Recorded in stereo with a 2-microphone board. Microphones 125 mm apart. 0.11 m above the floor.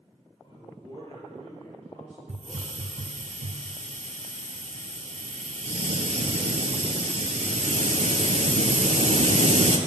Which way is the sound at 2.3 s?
60° right (ahead or behind).